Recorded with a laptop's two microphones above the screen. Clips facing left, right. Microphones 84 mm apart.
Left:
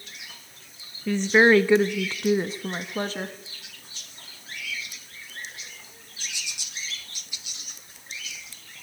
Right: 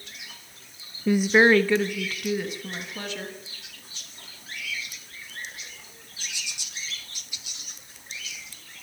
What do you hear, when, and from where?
1.1 s a woman speaking: 20° right (ahead or behind), 0.6 m; by 3.4 s 40° left (ahead or behind), 1.8 m